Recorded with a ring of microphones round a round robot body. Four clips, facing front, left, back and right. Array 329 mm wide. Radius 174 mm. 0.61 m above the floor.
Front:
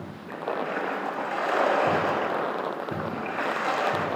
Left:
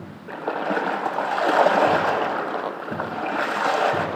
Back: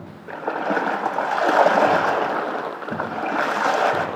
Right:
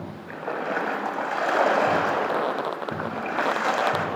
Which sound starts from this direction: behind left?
A splash, at 0.3 s.